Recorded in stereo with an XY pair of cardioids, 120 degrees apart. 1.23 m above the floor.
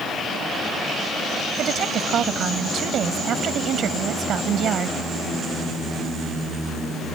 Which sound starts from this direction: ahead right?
A woman speaking, at 1.6 s.